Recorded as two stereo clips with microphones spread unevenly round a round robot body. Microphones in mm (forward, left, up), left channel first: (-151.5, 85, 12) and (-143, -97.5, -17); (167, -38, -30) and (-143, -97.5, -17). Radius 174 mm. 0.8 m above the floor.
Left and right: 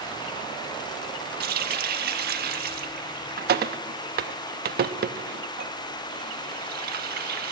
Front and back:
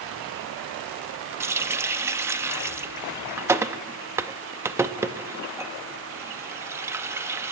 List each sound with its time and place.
1.4 s a running tap: 85° right, 0.6 m